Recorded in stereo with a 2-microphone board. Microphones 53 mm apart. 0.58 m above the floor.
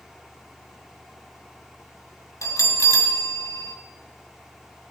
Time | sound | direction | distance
2.4 | a bell | 85° left | 1.7 m